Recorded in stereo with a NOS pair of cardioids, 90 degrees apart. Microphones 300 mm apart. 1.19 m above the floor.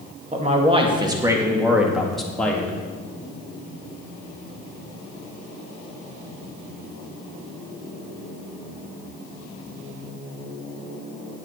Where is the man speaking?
25° right, 2 m; by 2.7 s 5° left, 2.5 m.